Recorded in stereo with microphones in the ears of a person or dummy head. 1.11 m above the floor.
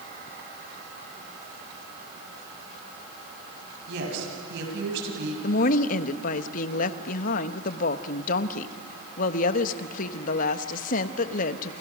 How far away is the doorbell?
I don't hear a doorbell.